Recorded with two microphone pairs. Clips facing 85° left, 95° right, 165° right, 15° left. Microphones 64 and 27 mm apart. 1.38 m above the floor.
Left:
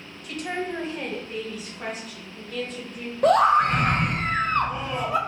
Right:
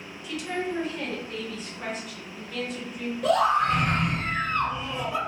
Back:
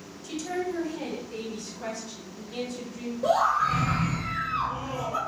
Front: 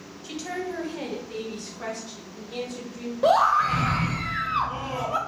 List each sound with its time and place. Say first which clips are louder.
0.2 s a woman speaking: left 1 dB, back 1 dB; 70° left, 0.6 m; by 3.1 s 15° right, 1.7 m
3.2 s a scream: left 4 dB, front 4 dB; 45° left, 0.5 m